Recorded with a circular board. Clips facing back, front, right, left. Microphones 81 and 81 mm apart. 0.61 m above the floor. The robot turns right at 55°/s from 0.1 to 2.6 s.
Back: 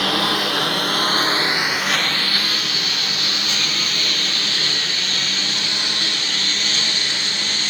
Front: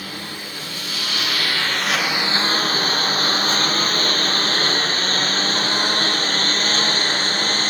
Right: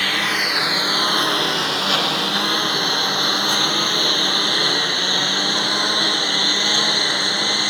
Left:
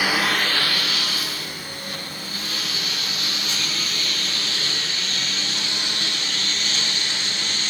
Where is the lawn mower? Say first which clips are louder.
Back 12 dB, even; 170° left; by 7.7 s 45° right.